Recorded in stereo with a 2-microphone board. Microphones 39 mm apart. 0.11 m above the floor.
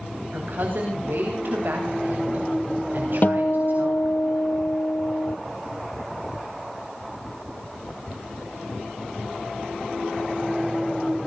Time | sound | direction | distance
0.3 | a woman speaking | 60° right (ahead or behind) | 9 m
3.2 | a guitar | 50° left (ahead or behind) | 1.0 m